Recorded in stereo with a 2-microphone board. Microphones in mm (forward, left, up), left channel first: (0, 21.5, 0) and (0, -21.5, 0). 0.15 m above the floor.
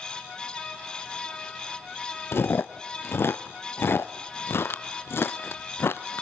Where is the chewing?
65° left (ahead or behind), 0.8 m.